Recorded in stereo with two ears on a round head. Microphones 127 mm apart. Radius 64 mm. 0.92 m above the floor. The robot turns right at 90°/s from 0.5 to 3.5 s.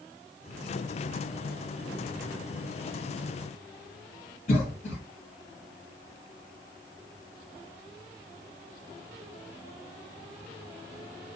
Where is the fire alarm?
I don't hear a fire alarm.